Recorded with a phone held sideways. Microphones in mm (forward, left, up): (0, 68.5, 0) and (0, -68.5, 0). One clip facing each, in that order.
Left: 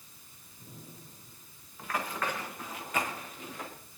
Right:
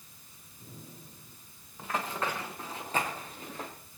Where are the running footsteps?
20° right (ahead or behind), 4.5 m; by 3.7 s 35° right (ahead or behind), 4.5 m.